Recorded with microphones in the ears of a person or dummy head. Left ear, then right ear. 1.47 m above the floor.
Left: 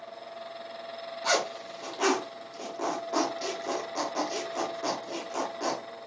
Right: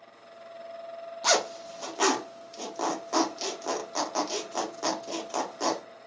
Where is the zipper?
75° right (ahead or behind), 0.6 m.